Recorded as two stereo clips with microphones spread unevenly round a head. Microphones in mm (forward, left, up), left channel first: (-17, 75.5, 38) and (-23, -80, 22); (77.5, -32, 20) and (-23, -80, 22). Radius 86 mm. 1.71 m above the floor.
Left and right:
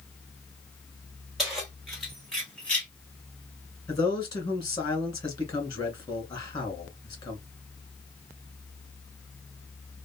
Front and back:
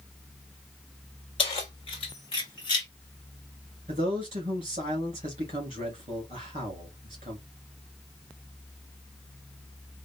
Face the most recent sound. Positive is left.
turn(degrees=150)